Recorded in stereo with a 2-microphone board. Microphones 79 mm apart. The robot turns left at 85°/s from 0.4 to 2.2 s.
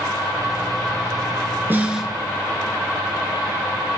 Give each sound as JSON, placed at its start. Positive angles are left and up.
{"t": 1.7, "sound": "a snare drum", "azimuth_deg": -145, "distance_m": 1.2}